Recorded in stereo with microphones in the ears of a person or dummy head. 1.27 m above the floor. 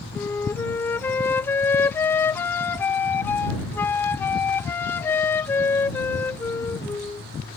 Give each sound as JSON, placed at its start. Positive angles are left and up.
{"t": 0.1, "sound": "a flute", "side_deg": 10}